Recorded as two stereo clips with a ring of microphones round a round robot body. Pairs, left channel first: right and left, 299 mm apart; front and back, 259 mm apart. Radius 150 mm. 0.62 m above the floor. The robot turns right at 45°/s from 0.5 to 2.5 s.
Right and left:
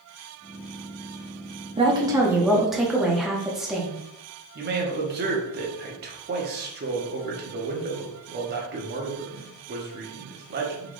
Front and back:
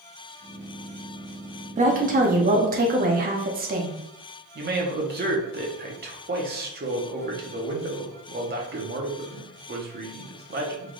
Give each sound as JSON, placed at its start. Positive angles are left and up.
{"t": 1.8, "sound": "a woman speaking", "azimuth_deg": 145, "distance_m": 0.7}
{"t": 4.5, "sound": "a man speaking", "azimuth_deg": 140, "distance_m": 0.8}